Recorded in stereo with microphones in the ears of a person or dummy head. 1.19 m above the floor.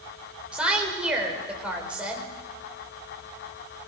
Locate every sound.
0.5 s a woman speaking: 5° right (ahead or behind), 5 m